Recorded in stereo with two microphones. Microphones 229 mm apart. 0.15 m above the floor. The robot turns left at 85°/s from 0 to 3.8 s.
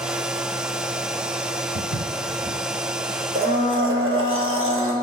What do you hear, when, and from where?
1.8 s footsteps: 80° right, 1.2 m; by 2.6 s 10° right (ahead or behind), 1.2 m
3.4 s a blender: 35° right, 1.5 m; by 5.0 s 75° right, 1.5 m